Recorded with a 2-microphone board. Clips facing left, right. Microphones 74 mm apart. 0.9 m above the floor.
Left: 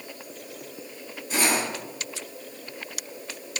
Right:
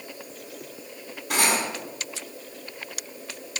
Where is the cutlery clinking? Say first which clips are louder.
Right 1 dB; 65° right (ahead or behind), 4.5 m.